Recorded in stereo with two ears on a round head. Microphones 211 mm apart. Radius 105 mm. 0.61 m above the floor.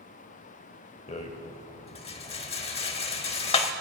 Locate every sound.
1.1 s a rattle: 25° left (ahead or behind), 0.9 m